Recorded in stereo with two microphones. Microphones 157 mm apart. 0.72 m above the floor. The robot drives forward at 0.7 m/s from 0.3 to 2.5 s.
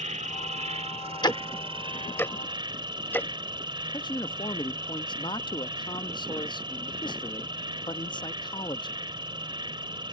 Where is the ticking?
30° left (ahead or behind); by 3.3 s 10° left (ahead or behind).